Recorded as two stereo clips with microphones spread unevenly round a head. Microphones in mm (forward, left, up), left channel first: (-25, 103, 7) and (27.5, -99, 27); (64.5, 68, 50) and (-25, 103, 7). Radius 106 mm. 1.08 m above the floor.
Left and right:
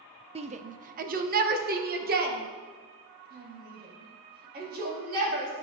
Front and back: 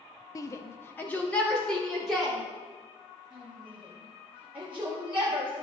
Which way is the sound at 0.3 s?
90° right.